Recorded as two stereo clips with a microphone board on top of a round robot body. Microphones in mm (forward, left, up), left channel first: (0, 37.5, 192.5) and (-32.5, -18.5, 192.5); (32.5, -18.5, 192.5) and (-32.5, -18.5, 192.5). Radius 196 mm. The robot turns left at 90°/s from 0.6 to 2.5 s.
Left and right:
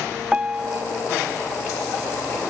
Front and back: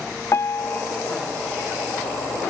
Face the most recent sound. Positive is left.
turn(degrees=145)